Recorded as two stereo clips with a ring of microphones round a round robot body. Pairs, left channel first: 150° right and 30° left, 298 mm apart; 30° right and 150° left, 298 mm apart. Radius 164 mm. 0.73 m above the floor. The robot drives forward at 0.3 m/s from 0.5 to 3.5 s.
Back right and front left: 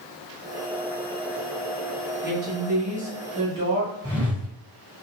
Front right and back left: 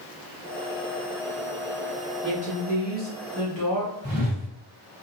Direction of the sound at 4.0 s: 135° left.